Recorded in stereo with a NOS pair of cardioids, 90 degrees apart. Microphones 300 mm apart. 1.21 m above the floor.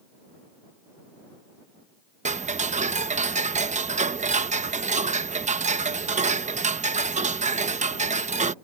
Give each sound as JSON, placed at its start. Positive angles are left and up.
{"t": 2.2, "sound": "ticking", "azimuth_deg": -25}